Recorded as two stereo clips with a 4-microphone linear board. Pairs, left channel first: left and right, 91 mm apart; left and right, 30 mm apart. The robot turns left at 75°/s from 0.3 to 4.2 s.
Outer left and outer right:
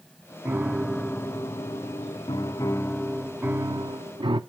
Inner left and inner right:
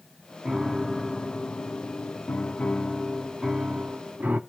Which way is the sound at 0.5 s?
155° right.